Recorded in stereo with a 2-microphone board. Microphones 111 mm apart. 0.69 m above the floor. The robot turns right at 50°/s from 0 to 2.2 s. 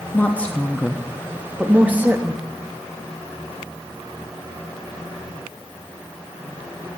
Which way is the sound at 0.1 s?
15° left (ahead or behind).